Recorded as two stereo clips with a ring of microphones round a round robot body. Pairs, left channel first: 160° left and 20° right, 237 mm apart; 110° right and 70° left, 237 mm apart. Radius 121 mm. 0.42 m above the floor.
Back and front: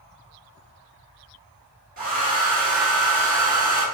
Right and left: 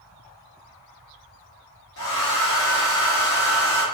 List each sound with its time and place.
2.0 s a hair dryer: 80° right, 1.1 m